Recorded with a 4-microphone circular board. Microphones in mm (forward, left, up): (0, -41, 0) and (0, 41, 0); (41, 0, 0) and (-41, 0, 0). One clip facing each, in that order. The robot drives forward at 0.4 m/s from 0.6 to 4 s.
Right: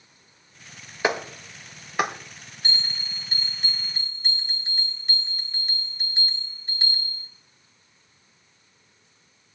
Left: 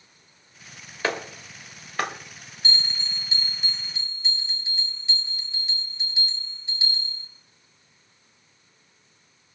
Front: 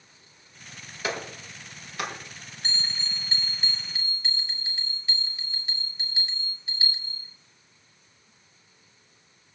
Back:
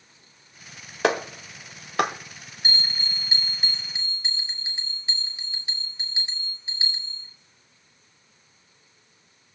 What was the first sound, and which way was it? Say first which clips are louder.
A clap: right 3 dB, back 9 dB; 165° right.